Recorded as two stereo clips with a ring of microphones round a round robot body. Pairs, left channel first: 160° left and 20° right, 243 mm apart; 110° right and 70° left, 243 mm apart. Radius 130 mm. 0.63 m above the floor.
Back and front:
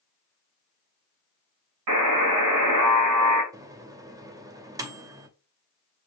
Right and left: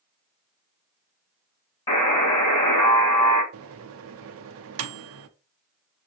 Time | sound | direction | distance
1.9 | a buzzer | 40° right | 2 m
3.5 | a microwave | 55° left | 0.6 m